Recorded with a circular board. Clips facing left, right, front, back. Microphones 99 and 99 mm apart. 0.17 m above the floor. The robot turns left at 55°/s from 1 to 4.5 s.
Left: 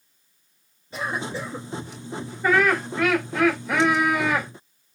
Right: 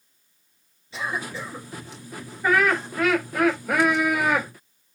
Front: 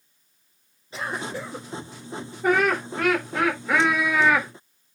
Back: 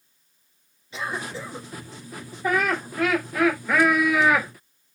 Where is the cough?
50° left, 2.5 m; by 1.7 s 15° left, 2.5 m.